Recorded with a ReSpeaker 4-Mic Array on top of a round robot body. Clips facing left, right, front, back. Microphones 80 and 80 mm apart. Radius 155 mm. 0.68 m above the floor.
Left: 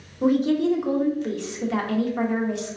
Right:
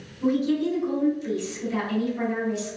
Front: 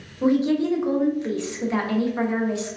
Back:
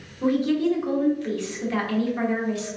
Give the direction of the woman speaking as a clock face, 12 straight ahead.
10 o'clock.